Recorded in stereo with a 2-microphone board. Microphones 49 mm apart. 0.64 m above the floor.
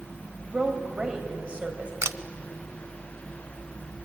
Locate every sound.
0.4 s a woman speaking: 25° right (ahead or behind), 4 m
2.0 s a camera shutter: 65° right (ahead or behind), 0.7 m